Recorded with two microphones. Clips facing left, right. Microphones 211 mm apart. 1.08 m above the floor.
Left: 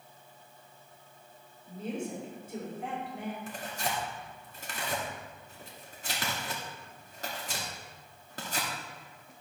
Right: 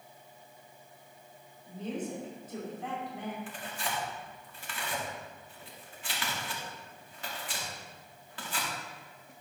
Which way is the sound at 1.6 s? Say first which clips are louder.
Even; 10° left (ahead or behind).